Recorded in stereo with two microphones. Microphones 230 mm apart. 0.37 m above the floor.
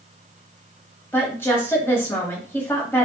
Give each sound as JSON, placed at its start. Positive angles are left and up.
{"t": 1.1, "sound": "a woman speaking", "side_deg": 10, "distance_m": 1.7}